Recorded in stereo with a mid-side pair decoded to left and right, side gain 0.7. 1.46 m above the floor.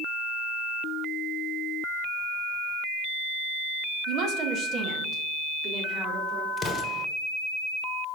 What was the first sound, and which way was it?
A woman speaking, 60° right.